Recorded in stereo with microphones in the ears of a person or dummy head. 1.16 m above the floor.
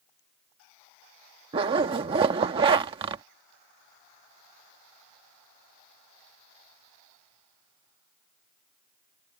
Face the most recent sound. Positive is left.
turn(degrees=-30)  # may be behind; listen again after turning